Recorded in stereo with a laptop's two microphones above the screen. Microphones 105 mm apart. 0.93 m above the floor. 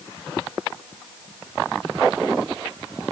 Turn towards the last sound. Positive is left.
No sound to turn to.